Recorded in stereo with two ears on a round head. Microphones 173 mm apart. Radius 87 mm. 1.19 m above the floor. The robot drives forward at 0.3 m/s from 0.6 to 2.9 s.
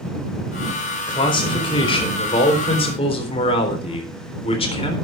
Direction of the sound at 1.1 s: 25° left (ahead or behind).